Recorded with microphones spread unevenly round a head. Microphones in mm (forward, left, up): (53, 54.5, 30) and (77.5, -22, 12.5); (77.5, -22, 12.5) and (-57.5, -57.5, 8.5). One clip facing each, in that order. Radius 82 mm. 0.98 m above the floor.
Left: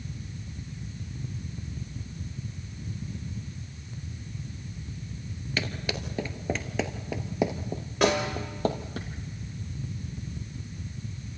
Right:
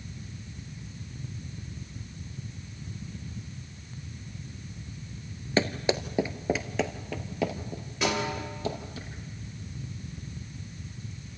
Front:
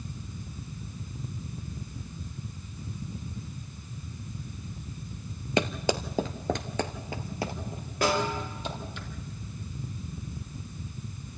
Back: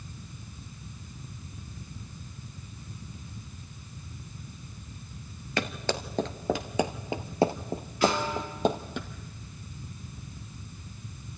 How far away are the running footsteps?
About 1.0 m.